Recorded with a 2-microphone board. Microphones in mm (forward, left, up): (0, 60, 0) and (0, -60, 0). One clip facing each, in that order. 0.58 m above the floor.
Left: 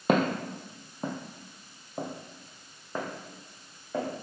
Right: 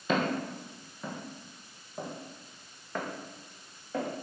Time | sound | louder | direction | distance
0.1 | footsteps | left 4 dB | 60° left (ahead or behind) | 1.1 m